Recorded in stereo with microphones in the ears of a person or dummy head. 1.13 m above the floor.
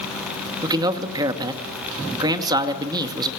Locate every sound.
0.6 s a man speaking: 20° right (ahead or behind), 2 m